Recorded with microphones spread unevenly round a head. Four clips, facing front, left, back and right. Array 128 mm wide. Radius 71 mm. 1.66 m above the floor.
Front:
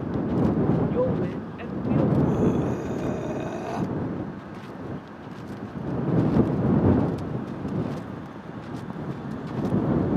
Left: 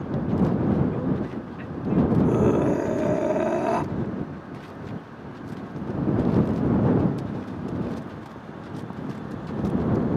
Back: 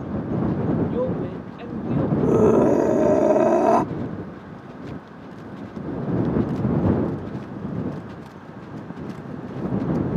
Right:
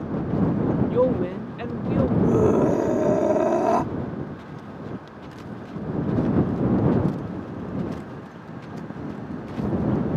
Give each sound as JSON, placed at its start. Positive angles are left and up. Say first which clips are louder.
{"t": 0.9, "sound": "a woman speaking", "louder": "right 6 dB, even", "azimuth_deg": -90}
{"t": 2.2, "sound": "a scream", "louder": "right 2 dB, back 7 dB", "azimuth_deg": -170}